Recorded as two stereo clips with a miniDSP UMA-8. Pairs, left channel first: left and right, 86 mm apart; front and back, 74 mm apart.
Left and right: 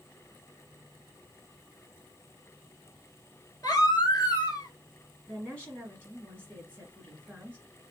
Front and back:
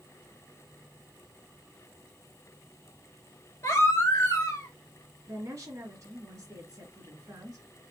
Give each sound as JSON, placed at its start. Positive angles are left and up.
{"t": 3.6, "sound": "a baby crying", "azimuth_deg": 45, "distance_m": 1.1}
{"t": 5.3, "sound": "a woman speaking", "azimuth_deg": 160, "distance_m": 1.3}